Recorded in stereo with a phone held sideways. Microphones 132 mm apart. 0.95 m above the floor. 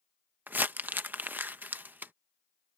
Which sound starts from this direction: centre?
Crumpling, at 0.5 s.